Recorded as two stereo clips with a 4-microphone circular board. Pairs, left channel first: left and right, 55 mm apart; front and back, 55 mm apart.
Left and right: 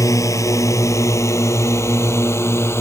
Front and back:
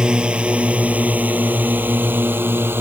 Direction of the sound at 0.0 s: 110° left.